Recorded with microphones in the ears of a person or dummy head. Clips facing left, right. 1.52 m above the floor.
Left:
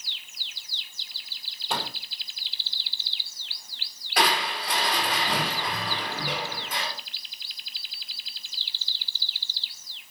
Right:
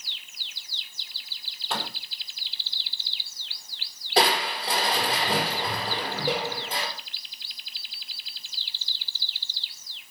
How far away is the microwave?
About 5 m.